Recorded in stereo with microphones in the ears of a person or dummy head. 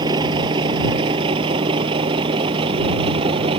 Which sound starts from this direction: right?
A vehicle, at 0.0 s.